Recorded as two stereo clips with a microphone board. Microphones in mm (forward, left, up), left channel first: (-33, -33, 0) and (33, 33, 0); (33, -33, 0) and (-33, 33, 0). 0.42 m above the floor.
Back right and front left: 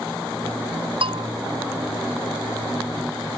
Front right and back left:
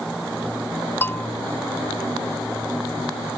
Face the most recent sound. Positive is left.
turn(degrees=25)